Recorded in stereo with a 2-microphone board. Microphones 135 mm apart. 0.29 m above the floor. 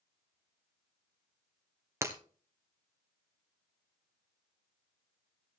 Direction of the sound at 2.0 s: 20° right (ahead or behind).